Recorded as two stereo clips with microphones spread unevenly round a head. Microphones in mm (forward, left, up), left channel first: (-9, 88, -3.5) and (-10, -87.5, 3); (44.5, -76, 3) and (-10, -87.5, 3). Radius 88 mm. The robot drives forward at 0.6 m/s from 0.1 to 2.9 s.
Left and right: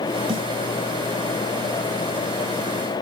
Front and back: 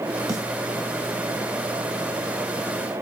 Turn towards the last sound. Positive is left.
turn(degrees=-165)